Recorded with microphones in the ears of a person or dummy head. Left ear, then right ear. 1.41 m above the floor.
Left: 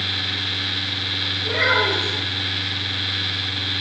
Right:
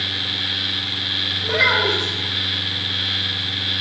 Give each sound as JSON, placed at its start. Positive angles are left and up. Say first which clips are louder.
{"t": 1.4, "sound": "a child speaking", "louder": "right 1 dB", "side_deg": -30, "distance_m": 4.0}